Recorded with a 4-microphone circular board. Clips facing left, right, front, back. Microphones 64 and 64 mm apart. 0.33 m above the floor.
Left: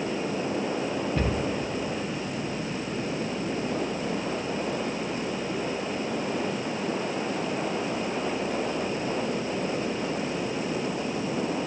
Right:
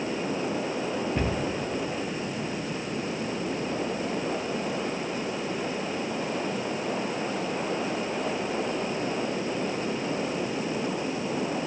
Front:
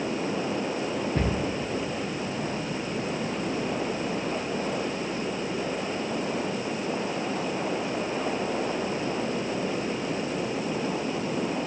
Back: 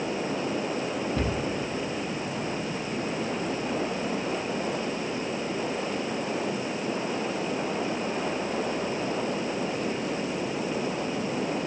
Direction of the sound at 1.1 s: 20° right.